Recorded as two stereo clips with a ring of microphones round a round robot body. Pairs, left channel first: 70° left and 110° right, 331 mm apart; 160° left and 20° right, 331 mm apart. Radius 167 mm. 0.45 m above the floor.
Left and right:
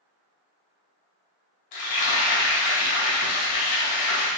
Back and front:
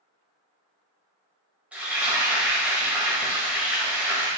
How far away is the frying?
About 2.5 m.